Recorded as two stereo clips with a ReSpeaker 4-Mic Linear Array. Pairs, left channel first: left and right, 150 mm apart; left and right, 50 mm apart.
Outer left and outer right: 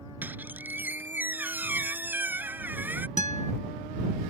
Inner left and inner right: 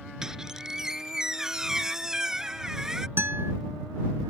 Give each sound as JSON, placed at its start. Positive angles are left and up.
{"t": 0.2, "sound": "a squeak", "side_deg": -15}
{"t": 3.2, "sound": "a guitar", "side_deg": -55}